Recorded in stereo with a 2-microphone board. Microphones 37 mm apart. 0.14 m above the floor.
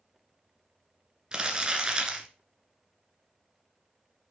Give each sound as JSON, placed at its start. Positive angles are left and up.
{"t": 1.3, "sound": "crumpling", "side_deg": -25, "distance_m": 1.8}